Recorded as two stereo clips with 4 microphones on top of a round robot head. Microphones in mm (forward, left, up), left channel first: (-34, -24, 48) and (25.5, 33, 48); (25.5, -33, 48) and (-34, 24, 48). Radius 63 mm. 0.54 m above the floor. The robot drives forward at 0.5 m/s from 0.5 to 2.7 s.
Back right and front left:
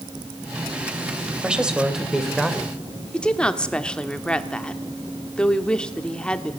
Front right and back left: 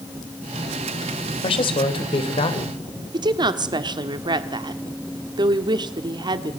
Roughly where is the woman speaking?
Behind left.